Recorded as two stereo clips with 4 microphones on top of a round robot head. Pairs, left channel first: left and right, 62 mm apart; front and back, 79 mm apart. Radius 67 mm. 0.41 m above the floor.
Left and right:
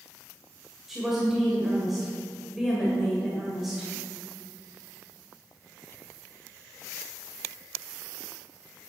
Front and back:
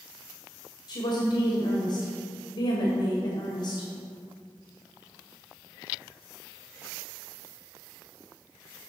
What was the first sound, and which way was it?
A woman speaking, 5° right.